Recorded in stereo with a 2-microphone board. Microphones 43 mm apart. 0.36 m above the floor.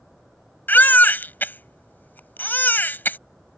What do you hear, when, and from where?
0.7 s a baby crying: 50° left (ahead or behind)